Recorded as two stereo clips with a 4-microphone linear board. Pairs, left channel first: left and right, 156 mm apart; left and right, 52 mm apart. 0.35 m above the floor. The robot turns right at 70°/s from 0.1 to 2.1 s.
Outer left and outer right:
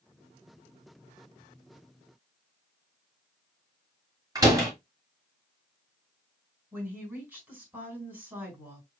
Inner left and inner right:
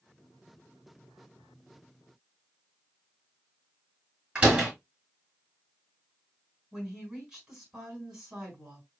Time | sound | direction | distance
4.3 | a door slam | 20° right (ahead or behind) | 3.5 m
6.7 | a woman speaking | 10° right (ahead or behind) | 4 m